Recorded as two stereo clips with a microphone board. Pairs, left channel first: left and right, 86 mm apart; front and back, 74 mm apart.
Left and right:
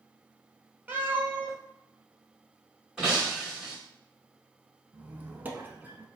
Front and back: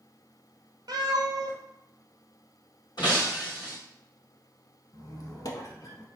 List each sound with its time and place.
0.9 s a cat meowing: 160° right, 0.8 m
3.0 s breaking glass: 10° right, 1.7 m
4.9 s a squeak: 25° right, 0.6 m